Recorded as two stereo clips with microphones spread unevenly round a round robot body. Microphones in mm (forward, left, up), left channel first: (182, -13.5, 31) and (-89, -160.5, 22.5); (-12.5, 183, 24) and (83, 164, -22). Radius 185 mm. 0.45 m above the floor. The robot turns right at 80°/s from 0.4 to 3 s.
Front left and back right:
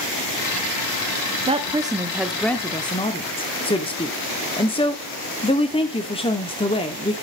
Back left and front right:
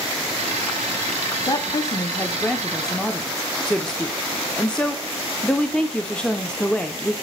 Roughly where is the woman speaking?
Behind right.